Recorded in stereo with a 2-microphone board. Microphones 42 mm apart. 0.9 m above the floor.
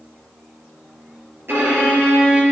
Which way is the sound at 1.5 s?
60° right (ahead or behind).